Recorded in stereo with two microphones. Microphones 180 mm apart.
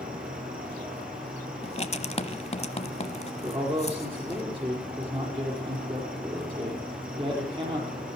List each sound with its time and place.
0.0 s an insect: 50° right (ahead or behind), 5 m
1.6 s writing: 35° left (ahead or behind), 0.9 m
3.4 s a man speaking: 30° right (ahead or behind), 6 m